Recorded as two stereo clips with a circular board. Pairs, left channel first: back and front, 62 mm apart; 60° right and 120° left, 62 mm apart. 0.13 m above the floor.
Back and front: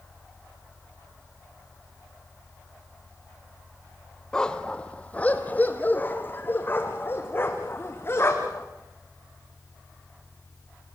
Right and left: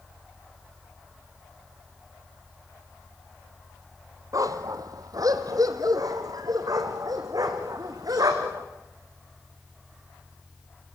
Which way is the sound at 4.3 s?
100° left.